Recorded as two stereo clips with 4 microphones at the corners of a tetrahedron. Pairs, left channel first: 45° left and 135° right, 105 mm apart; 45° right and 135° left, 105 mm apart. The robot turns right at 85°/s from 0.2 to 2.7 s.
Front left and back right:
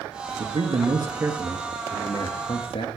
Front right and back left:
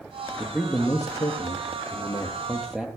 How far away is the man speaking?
About 2.5 m.